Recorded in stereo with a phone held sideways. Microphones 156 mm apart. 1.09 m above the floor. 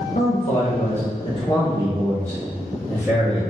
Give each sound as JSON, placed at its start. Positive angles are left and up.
{"t": 0.1, "sound": "a man speaking", "side_deg": 65, "distance_m": 0.9}